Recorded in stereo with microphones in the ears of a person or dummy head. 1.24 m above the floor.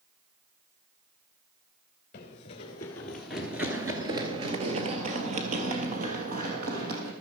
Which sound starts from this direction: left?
Running footsteps, at 2.1 s.